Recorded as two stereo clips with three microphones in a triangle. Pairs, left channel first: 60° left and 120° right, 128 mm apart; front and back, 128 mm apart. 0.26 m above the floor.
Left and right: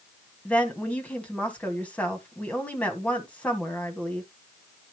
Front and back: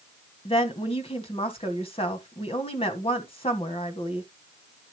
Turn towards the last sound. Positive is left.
turn(degrees=-15)